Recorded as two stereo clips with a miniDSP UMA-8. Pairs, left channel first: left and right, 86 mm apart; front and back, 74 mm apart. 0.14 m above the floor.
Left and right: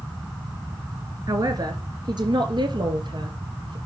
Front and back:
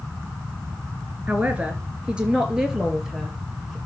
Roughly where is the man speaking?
Behind right.